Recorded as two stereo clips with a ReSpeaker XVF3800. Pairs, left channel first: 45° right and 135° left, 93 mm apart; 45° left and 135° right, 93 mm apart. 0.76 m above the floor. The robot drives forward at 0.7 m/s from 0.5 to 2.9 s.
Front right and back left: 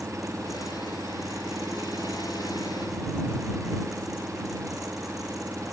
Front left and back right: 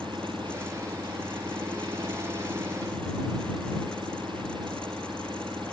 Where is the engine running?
170° right.